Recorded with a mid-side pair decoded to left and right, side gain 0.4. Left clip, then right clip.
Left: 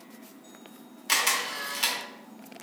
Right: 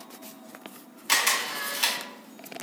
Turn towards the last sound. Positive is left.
turn(degrees=-5)